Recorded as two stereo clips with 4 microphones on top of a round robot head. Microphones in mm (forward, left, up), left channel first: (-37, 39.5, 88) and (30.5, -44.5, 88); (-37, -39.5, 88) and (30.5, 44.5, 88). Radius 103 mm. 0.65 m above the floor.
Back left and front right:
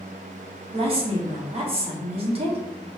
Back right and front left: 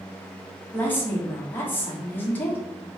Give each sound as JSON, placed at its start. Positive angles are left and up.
{"t": 0.7, "sound": "a woman speaking", "azimuth_deg": -60, "distance_m": 1.3}